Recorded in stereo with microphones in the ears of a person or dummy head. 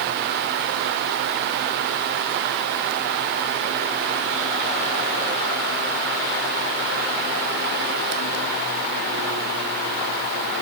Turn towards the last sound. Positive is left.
No sound to turn to.